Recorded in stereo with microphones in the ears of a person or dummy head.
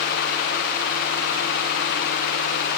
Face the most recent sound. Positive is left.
No sound to turn to.